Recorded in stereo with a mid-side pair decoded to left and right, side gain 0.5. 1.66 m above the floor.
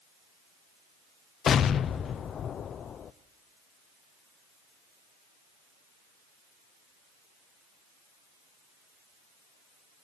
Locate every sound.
1.5 s an explosion: 50° left, 0.8 m